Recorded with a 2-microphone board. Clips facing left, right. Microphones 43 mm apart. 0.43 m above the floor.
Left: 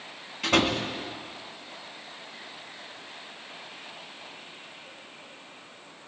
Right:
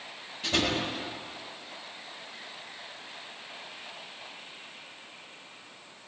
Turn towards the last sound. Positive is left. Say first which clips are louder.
# left 4 dB
turn(degrees=80)